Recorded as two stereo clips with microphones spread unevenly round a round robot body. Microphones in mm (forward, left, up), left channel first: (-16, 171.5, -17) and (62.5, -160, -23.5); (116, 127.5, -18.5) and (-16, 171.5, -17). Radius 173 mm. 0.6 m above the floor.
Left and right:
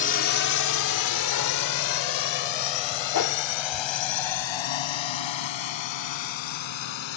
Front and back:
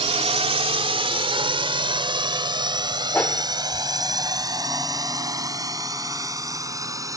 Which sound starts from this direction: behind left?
A drone, at 0.0 s.